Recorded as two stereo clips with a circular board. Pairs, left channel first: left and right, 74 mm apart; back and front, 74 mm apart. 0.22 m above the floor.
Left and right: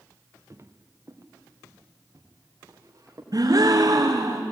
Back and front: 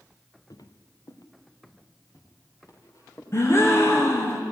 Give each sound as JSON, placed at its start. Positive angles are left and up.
{"t": 0.5, "sound": "footsteps", "azimuth_deg": -140, "distance_m": 1.6}
{"t": 3.3, "sound": "a gasp", "azimuth_deg": -125, "distance_m": 2.5}